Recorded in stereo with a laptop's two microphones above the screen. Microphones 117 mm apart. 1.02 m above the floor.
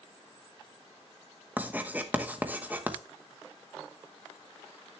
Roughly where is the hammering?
I don't hear hammering.